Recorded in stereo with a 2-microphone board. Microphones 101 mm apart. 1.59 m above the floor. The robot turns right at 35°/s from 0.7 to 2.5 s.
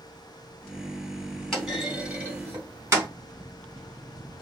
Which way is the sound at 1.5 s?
5° left (ahead or behind).